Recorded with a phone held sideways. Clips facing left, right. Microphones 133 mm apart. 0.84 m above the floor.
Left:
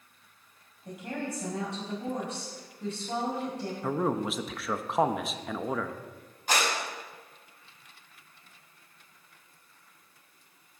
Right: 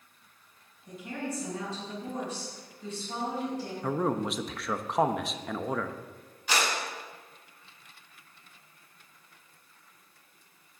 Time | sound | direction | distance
0.8 | a woman speaking | 70° left (ahead or behind) | 4.5 m
3.8 | a man speaking | centre (ahead or behind) | 0.7 m
6.5 | a clap | 50° left (ahead or behind) | 5.5 m